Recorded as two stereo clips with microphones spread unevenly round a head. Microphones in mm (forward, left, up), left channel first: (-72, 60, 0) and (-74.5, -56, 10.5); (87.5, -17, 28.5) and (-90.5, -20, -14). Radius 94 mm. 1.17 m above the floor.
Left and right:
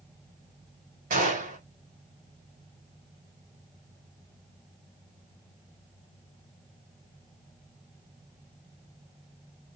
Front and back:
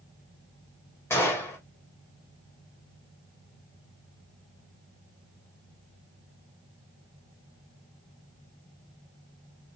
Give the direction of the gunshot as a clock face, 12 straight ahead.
3 o'clock.